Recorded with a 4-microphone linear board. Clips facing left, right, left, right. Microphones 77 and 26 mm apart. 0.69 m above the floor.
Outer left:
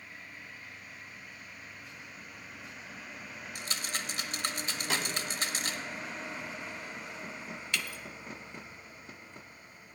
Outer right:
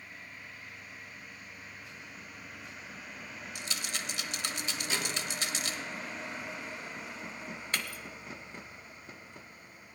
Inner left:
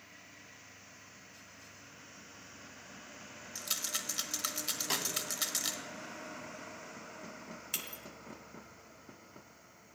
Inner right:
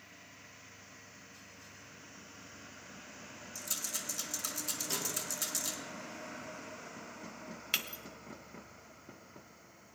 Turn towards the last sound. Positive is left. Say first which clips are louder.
# even, inner right 7 dB
turn(degrees=-40)  # may be behind; listen again after turning